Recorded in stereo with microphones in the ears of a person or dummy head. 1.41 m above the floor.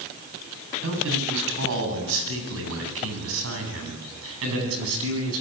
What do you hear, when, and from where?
0.8 s a man speaking: 70° right (ahead or behind), 8.5 m; by 5.4 s 85° right, 10.5 m